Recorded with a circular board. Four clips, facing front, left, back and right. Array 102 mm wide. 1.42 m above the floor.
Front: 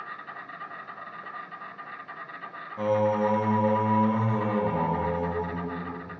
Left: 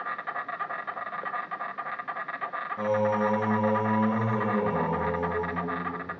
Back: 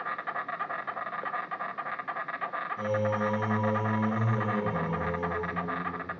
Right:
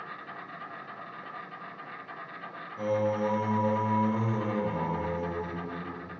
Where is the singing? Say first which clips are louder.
Left 2 dB, front 6 dB; 30° left, 0.9 m.